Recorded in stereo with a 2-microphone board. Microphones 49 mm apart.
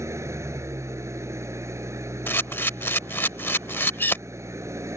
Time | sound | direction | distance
0.0 | an engine running | 80° right | ?
2.3 | a camera shutter | 50° left (ahead or behind) | ?